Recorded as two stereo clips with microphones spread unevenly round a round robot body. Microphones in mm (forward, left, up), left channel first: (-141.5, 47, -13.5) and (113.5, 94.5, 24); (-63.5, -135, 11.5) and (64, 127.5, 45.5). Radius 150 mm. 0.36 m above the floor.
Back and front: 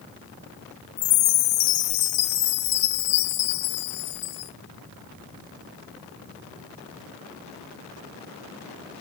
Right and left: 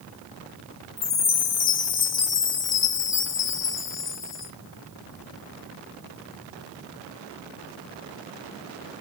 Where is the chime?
160° right, 1.1 m.